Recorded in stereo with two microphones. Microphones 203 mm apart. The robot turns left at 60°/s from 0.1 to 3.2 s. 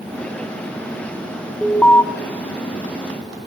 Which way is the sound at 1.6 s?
Centre (ahead or behind).